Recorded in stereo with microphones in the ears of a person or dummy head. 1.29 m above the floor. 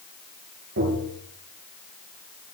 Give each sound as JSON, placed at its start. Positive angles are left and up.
{"t": 0.8, "sound": "tapping", "side_deg": -60, "distance_m": 9.5}